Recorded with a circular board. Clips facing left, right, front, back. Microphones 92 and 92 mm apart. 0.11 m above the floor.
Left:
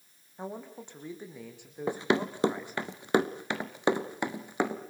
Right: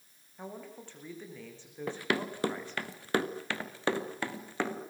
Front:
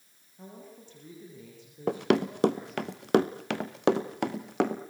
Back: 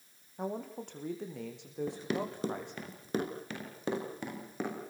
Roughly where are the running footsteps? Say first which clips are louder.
Left 5 dB, front 12 dB; ahead.